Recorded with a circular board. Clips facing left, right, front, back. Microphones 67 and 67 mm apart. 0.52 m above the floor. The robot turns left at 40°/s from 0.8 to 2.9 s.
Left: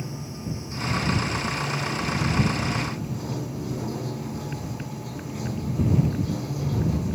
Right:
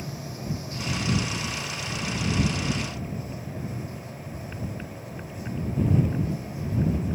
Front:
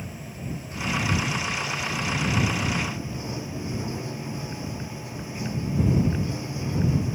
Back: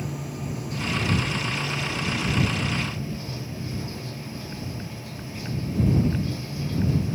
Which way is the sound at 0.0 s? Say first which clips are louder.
Left 1 dB, back 5 dB; 155° left.